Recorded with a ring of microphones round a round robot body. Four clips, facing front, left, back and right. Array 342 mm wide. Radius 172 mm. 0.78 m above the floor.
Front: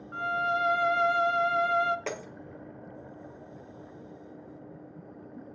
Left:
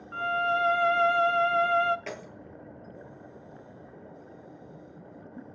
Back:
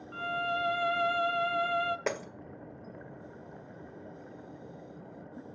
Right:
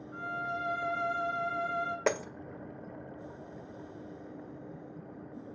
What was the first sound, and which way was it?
A violin, 75° left.